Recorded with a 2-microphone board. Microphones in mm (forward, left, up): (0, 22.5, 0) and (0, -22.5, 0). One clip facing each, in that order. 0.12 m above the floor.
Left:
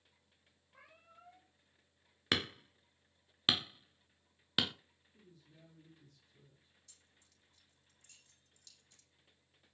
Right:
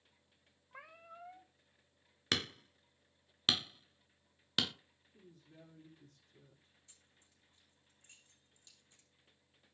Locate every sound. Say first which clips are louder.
0.7 s a cat meowing: right 8 dB; 75° right (ahead or behind), 2.5 m
2.3 s hammering: left 2 dB; 10° left (ahead or behind), 0.7 m
5.1 s a woman speaking: right 3 dB; 50° right (ahead or behind), 6 m
6.9 s keys jangling: even; 25° right (ahead or behind), 5 m